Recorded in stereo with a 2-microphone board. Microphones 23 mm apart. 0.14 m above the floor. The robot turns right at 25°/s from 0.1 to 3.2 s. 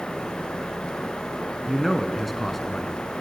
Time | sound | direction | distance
1.7 | a man speaking | 5° right (ahead or behind) | 1.5 m